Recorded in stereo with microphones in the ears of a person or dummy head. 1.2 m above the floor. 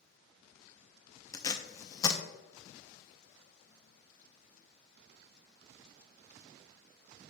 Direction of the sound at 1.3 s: 20° left (ahead or behind).